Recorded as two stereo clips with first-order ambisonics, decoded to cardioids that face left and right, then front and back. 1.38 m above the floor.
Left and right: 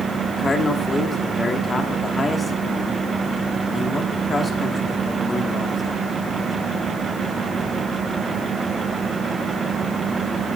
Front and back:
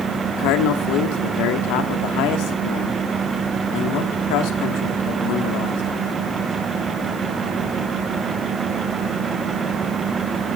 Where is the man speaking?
15° left, 1.8 m.